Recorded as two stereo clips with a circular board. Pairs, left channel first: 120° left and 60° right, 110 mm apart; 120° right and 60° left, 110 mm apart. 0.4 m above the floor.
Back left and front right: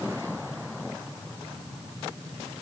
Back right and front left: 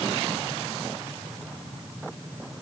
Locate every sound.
Only background noise.